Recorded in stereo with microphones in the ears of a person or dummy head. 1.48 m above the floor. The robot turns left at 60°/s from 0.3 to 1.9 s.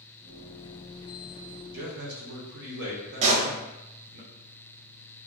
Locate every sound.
1.7 s a man speaking: 70° right (ahead or behind), 0.8 m; by 4.2 s 65° right (ahead or behind), 0.8 m
3.2 s a pop: 35° right (ahead or behind), 0.5 m